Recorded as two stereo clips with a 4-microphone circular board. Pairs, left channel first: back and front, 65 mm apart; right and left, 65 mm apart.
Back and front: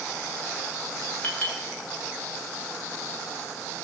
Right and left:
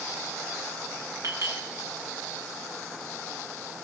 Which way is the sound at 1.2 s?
120° left.